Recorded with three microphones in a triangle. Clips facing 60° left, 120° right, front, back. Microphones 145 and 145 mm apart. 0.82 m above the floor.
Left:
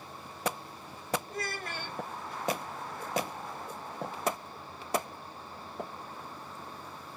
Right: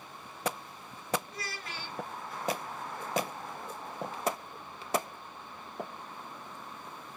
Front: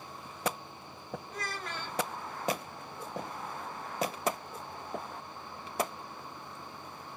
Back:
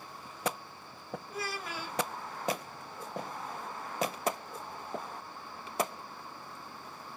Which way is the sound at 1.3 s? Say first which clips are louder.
Left 5 dB, back 3 dB; 95° left.